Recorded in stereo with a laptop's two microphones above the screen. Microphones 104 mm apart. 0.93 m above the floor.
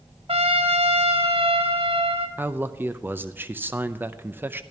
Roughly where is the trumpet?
Right.